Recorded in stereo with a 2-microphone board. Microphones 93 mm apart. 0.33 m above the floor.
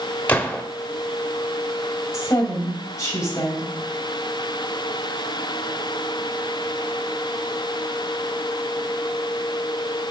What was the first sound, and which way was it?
A gunshot, 15° left (ahead or behind).